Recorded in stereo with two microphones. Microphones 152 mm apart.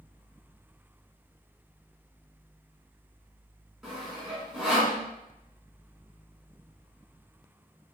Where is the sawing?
5° right (ahead or behind), 1.5 m.